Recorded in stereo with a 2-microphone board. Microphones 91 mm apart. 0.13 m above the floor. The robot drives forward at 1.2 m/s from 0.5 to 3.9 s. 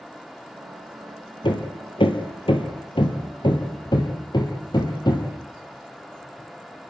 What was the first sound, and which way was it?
Hammering, 60° left (ahead or behind).